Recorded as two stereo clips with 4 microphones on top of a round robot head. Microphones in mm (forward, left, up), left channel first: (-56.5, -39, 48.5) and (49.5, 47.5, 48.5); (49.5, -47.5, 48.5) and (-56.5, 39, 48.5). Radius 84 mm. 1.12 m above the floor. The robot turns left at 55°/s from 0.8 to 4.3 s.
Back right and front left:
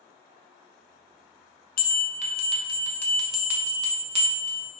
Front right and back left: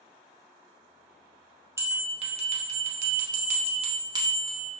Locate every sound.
1.8 s a bell: 150° right, 0.6 m; by 4.7 s 75° left, 0.6 m